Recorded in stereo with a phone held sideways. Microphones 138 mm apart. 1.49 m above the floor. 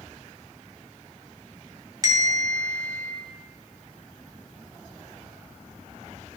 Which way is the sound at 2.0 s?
25° right (ahead or behind).